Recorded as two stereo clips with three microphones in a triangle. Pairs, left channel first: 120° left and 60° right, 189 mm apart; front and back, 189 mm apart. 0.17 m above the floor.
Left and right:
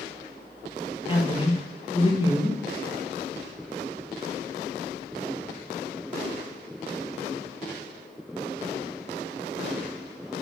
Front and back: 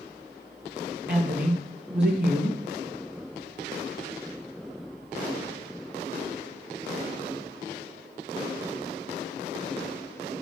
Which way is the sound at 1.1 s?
Straight behind.